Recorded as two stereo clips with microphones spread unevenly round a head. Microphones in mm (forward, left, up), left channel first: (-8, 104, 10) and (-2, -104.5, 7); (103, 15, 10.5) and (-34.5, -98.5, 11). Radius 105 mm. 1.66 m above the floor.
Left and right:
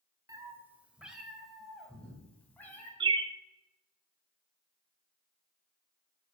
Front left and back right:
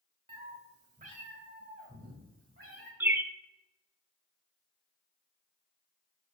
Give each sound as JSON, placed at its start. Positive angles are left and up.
{"t": 0.3, "sound": "a cat meowing", "azimuth_deg": -145, "distance_m": 1.5}
{"t": 3.0, "sound": "a bird", "azimuth_deg": -85, "distance_m": 0.7}